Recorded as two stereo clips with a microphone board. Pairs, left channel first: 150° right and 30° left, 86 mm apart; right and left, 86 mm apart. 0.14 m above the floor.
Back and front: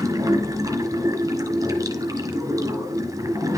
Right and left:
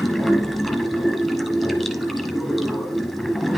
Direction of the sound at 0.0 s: Straight ahead.